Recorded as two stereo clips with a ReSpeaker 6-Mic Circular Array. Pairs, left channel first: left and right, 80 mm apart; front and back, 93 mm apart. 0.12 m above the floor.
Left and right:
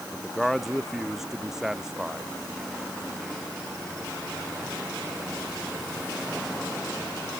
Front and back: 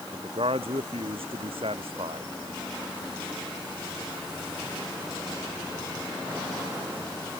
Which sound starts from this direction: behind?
A man speaking, at 0.1 s.